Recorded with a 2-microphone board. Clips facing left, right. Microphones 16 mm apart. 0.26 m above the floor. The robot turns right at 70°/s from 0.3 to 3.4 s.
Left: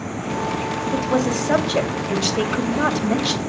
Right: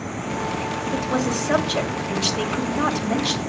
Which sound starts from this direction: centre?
A woman speaking, at 0.9 s.